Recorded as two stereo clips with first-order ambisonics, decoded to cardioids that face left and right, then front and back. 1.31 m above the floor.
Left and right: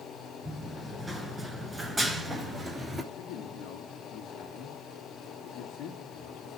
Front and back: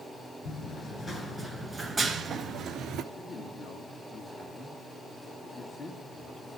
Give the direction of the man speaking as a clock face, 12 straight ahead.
10 o'clock.